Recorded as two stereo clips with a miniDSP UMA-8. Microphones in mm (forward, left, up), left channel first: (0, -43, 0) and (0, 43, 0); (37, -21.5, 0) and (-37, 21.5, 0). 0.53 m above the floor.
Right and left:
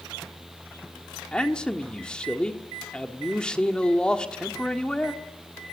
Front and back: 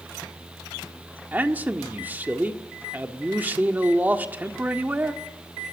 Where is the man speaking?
160° right, 1.5 m.